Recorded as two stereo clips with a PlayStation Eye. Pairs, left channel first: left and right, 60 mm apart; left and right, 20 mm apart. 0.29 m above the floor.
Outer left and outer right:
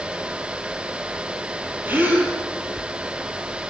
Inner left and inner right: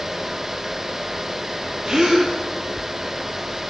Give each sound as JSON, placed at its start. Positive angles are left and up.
{"t": 1.9, "sound": "a gasp", "side_deg": -30, "distance_m": 7.0}